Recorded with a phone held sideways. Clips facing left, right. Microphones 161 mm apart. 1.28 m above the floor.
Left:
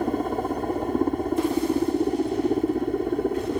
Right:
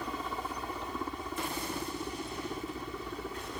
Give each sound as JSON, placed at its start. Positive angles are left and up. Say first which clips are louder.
{"t": 0.0, "sound": "a helicopter", "louder": "left 13 dB", "side_deg": 50}